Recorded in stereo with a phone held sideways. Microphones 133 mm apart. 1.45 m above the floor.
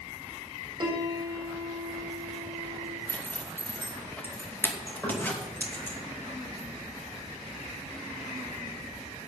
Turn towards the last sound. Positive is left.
turn(degrees=15)  # may be behind; listen again after turning